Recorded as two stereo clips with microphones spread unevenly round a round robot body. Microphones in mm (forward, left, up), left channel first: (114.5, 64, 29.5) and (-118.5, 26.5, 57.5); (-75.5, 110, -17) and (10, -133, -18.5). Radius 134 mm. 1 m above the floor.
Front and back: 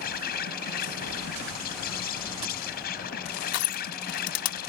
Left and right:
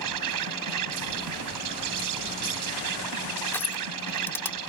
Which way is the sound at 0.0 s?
50° right.